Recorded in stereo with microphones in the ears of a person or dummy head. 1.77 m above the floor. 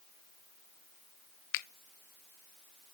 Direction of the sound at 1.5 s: 65° left (ahead or behind).